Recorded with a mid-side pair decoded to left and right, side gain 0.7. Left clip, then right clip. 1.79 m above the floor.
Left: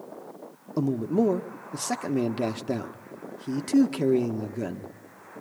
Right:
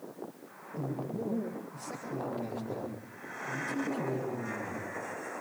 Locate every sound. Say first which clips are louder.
0.8 s a man speaking: left 12 dB; 65° left, 1.7 m